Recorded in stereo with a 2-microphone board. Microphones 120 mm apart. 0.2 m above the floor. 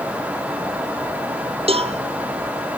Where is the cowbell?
55° right (ahead or behind), 1.1 m.